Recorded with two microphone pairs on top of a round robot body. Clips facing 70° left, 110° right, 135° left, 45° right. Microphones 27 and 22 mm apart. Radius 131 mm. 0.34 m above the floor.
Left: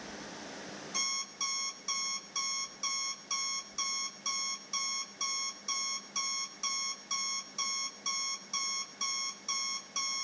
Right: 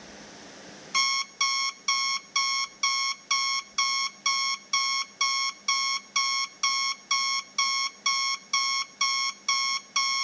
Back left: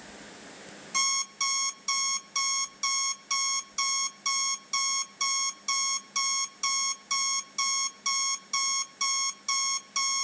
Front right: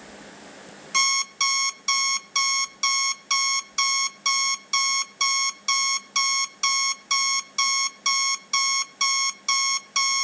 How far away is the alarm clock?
About 0.6 m.